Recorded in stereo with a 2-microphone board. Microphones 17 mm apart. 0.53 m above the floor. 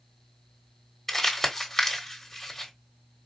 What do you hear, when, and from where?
1.1 s crumpling: 5° left (ahead or behind), 1.6 m